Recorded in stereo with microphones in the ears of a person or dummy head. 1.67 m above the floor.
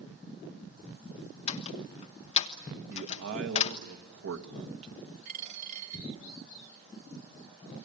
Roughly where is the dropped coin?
Right.